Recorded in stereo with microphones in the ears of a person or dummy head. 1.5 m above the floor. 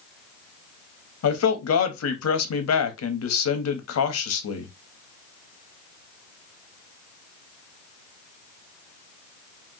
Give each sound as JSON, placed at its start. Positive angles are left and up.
{"t": 1.2, "sound": "a man speaking", "side_deg": 85, "distance_m": 0.8}